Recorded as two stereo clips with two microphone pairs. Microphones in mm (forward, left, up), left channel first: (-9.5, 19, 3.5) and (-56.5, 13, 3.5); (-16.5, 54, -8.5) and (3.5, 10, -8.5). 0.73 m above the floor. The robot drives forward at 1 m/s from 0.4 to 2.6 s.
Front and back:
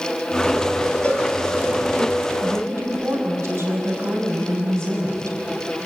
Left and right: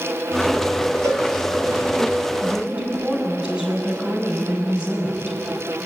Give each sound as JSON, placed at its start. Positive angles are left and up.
{"t": 1.0, "sound": "a cowbell", "azimuth_deg": -60, "distance_m": 5.0}
{"t": 2.4, "sound": "a woman speaking", "azimuth_deg": -135, "distance_m": 6.0}